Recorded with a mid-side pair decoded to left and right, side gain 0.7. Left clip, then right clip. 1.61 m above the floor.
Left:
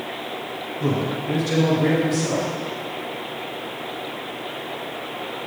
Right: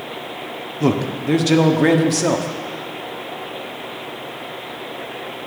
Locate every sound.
0.8 s a man speaking: 45° right, 0.9 m